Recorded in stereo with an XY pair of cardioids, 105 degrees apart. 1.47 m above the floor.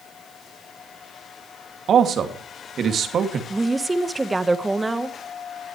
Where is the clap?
No clap in this recording.